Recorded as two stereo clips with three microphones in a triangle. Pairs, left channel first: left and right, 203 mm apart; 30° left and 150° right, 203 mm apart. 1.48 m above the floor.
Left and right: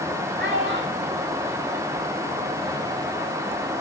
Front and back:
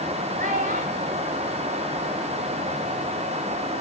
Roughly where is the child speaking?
Right.